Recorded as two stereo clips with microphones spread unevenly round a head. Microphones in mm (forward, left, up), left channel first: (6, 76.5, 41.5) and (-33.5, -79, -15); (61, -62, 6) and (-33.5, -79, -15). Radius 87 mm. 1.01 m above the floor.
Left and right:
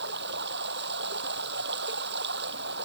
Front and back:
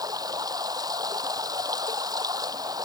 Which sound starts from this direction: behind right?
Running water, at 0.0 s.